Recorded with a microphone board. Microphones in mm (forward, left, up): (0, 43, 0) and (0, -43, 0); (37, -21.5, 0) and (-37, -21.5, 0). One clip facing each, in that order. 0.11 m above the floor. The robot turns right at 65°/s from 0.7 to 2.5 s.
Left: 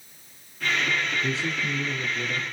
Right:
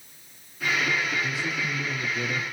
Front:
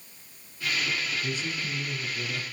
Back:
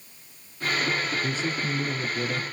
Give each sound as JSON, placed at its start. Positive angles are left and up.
{"t": 1.2, "sound": "a man speaking", "azimuth_deg": 130, "distance_m": 1.5}